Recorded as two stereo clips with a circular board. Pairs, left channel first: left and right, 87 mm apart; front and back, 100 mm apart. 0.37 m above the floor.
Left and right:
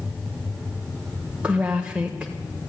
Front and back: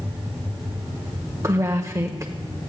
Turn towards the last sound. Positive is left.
turn(degrees=-155)